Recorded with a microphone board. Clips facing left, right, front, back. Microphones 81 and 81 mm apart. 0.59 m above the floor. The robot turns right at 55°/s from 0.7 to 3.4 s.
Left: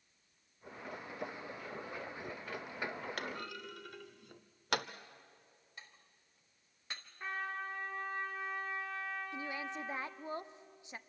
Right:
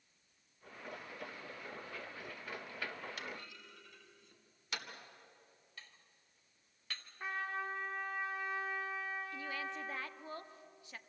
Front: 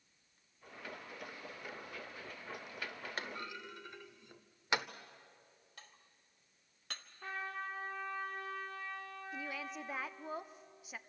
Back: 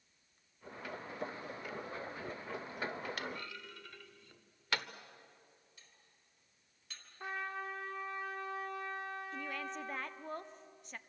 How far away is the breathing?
I don't hear breathing.